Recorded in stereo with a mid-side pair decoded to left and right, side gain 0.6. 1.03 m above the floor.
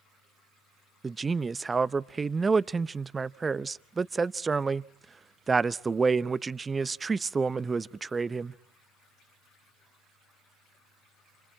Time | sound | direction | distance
1.0 | a man speaking | 20° right | 0.6 m